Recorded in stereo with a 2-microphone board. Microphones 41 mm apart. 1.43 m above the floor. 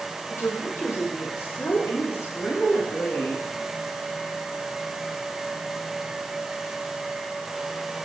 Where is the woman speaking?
90° left, 4 m; by 3.5 s 70° left (ahead or behind), 2 m.